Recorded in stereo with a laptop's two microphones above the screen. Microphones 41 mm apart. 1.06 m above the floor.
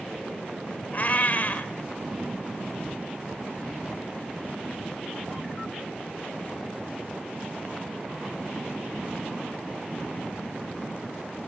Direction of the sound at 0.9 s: 45° left (ahead or behind).